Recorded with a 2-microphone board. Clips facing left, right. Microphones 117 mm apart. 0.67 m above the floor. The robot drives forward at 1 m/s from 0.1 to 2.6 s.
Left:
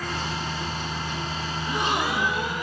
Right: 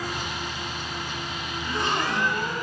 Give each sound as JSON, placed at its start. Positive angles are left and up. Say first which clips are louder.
{"t": 1.6, "sound": "a gasp", "louder": "left 1 dB", "side_deg": 20, "distance_m": 0.7}